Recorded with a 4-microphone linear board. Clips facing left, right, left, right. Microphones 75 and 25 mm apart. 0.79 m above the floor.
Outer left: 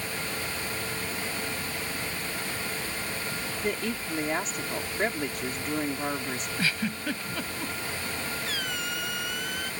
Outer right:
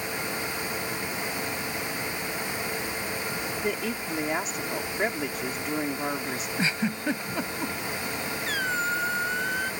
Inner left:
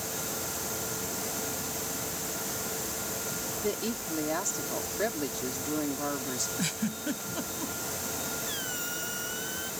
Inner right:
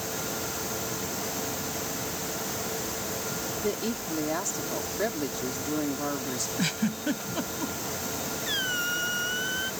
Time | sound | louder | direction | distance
3.6 | a woman speaking | outer left 1 dB, inner right 1 dB | 5° right (ahead or behind) | ?
6.6 | a giggle | outer right 3 dB, inner right 4 dB | 25° right (ahead or behind) | ?
8.5 | a squeak | outer right 6 dB, inner right 7 dB | 40° right (ahead or behind) | ?